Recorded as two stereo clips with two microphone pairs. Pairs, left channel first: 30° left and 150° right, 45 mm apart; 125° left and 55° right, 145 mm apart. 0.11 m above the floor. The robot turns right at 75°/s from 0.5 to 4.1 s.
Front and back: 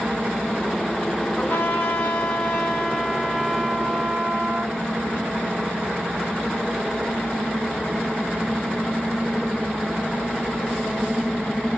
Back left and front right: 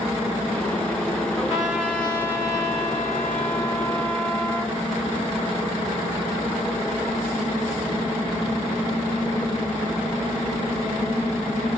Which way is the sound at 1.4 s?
5° left.